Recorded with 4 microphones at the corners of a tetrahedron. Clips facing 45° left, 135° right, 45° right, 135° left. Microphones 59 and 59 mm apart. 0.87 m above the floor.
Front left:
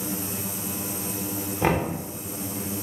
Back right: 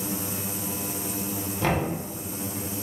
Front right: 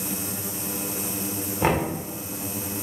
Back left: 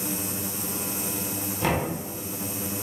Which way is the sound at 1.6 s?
10° right.